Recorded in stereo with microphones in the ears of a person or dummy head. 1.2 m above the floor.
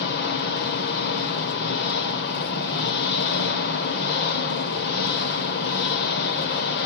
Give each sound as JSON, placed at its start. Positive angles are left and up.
{"t": 0.0, "sound": "an engine running", "side_deg": 65, "distance_m": 1.9}